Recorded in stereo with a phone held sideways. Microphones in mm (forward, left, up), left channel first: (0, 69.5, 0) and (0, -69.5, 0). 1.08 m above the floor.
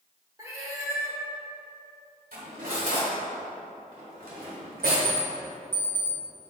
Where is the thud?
I don't hear a thud.